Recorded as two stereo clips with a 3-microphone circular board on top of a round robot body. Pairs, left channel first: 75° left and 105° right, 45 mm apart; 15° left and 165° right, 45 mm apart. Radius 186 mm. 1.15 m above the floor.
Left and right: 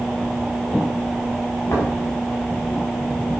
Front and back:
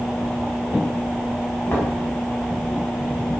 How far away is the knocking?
About 7.5 m.